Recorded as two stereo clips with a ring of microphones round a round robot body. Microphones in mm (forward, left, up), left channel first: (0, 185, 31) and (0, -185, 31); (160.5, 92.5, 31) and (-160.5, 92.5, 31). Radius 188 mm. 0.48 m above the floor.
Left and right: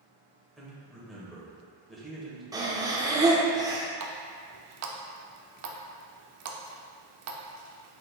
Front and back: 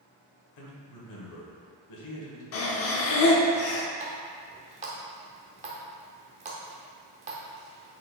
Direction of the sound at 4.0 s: 120° right.